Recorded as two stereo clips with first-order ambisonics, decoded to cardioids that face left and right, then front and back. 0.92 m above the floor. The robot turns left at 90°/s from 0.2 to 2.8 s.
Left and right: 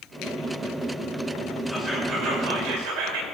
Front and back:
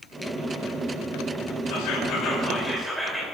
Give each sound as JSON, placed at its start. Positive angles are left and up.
{"t": 1.7, "sound": "whispering", "azimuth_deg": 5, "distance_m": 3.0}